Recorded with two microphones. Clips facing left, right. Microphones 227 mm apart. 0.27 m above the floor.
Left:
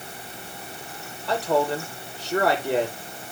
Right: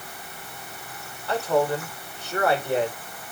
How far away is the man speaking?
About 9.5 m.